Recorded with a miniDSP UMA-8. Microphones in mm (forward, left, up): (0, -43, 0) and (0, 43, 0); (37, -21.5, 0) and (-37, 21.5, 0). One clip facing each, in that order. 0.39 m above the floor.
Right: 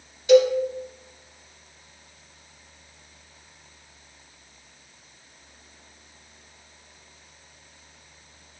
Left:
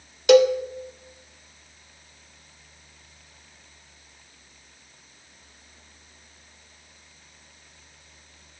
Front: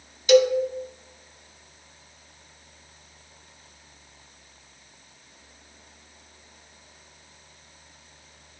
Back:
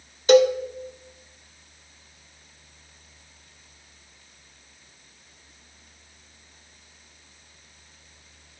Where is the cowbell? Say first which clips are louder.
Left 1 dB, back 1 dB; 105° left, 0.5 m.